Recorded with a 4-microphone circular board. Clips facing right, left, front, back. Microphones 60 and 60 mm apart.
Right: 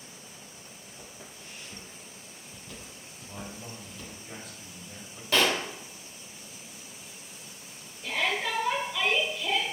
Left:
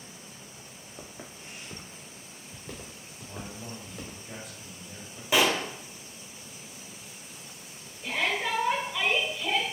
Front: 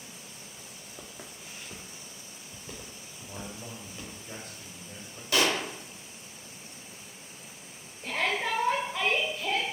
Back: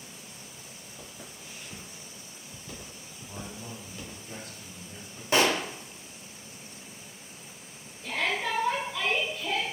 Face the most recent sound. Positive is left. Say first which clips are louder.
# even, even
turn(degrees=20)